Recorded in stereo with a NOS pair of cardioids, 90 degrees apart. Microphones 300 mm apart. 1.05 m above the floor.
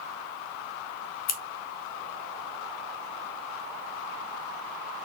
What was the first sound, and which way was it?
Scissors, 60° left.